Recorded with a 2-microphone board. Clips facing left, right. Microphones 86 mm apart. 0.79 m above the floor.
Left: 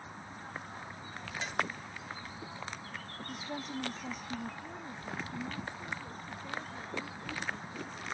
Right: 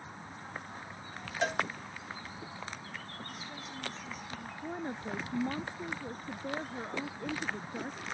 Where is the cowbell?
70° right (ahead or behind).